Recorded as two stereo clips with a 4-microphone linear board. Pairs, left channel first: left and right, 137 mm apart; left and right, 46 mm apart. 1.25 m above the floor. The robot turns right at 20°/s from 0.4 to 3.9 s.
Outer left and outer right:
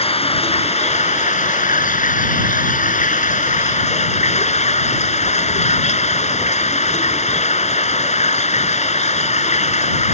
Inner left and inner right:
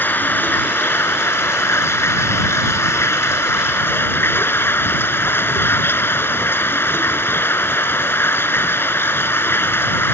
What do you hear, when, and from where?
0.0 s running water: 50° left; by 10.2 s 120° left